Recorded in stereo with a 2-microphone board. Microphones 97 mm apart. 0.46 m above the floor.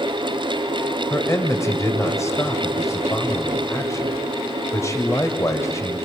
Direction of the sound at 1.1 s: 30° left (ahead or behind).